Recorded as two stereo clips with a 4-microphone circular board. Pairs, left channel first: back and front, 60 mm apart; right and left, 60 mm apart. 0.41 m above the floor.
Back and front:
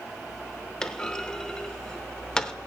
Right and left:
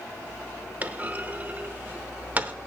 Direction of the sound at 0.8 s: 120° left.